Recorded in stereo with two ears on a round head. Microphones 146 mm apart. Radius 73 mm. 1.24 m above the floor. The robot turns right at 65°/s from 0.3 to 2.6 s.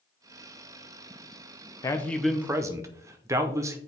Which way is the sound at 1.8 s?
155° left.